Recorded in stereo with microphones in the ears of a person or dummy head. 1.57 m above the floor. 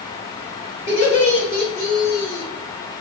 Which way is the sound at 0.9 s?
30° left (ahead or behind).